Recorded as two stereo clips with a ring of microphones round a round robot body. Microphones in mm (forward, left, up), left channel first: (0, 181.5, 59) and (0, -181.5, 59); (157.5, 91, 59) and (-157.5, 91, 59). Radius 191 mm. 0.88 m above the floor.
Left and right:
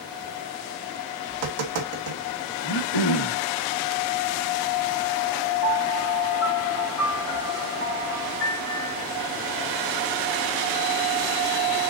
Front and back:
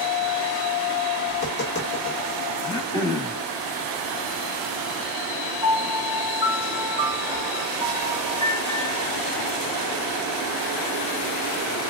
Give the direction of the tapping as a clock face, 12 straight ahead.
2 o'clock.